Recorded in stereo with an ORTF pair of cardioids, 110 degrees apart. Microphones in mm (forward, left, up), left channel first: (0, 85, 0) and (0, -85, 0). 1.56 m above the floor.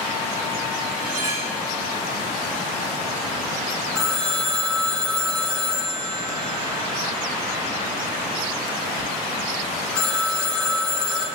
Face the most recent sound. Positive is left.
turn(degrees=5)